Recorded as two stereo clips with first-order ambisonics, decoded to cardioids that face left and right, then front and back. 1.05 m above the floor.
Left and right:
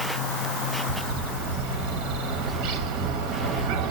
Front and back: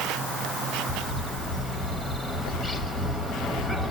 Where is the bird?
95° right, 0.9 m.